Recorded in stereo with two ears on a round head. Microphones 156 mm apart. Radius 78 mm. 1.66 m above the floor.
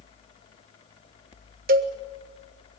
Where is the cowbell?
50° right (ahead or behind), 1.4 m.